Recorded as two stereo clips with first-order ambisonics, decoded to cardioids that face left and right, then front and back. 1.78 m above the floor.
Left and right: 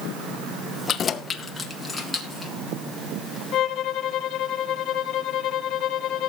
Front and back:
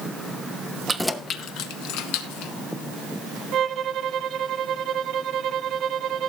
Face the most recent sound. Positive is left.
turn(degrees=130)